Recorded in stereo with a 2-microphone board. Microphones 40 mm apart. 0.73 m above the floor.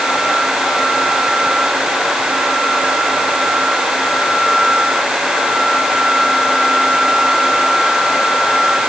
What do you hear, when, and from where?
Only background noise.